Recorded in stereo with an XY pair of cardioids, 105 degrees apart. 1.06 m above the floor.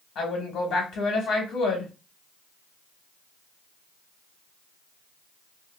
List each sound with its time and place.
0.1 s a woman speaking: 70° left, 2 m